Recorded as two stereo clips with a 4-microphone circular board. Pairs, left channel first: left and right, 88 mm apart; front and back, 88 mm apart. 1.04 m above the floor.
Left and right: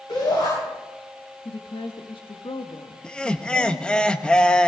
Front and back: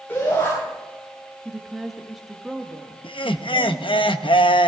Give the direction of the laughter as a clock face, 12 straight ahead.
12 o'clock.